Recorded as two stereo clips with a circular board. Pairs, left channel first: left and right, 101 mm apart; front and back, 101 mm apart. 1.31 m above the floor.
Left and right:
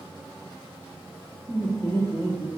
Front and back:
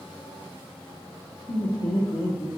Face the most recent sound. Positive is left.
turn(degrees=25)